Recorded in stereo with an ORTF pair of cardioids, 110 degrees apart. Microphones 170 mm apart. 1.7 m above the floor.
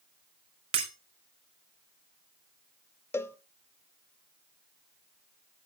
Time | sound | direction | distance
0.7 | breaking glass | 35° right | 3 m
3.1 | a cowbell | 15° left | 0.9 m